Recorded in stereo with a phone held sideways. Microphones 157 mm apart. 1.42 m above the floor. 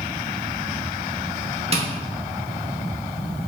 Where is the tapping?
40° right (ahead or behind), 0.8 m.